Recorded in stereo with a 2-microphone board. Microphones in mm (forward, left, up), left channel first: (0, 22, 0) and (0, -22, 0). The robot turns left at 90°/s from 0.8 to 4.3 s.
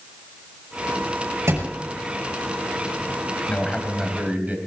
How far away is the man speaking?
About 3.5 m.